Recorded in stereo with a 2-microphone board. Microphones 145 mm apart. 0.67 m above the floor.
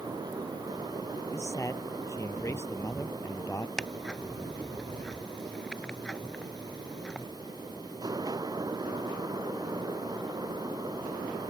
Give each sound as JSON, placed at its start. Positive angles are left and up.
{"t": 1.3, "sound": "a man speaking", "side_deg": 20}
{"t": 3.8, "sound": "ticking", "side_deg": 5}